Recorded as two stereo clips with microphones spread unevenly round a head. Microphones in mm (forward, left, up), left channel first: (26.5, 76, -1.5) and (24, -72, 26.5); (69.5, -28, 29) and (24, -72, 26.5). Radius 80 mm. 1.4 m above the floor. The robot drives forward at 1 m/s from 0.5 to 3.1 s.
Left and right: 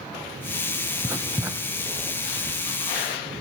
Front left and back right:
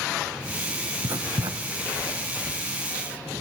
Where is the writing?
135° right, 1.4 m; by 2.6 s 165° right, 2.5 m.